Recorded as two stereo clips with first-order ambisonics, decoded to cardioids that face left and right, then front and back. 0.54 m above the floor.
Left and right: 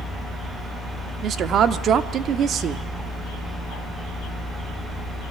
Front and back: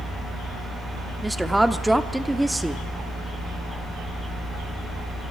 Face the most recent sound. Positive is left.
turn(degrees=-95)